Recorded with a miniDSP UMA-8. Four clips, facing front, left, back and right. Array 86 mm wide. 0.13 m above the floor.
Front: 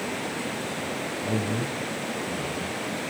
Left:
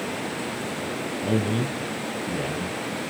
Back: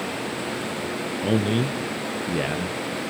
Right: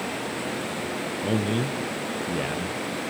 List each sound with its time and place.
1.2 s a man speaking: 170° right, 1.7 m